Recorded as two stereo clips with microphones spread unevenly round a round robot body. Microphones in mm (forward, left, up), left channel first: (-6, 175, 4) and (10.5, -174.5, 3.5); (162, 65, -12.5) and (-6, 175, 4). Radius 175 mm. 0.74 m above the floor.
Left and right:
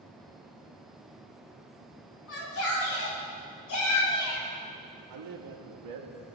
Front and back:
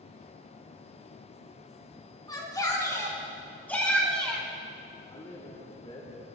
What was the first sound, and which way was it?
A shout, 35° left.